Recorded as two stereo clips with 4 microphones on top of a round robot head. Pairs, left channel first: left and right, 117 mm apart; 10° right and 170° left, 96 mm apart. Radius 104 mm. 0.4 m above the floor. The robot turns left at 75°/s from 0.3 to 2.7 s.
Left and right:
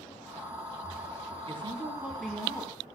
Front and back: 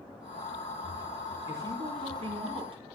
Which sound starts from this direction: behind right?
A woman speaking, at 1.5 s.